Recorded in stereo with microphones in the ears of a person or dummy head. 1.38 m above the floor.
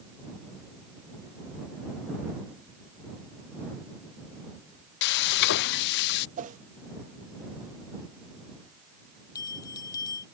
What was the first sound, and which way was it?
Frying, 55° left (ahead or behind).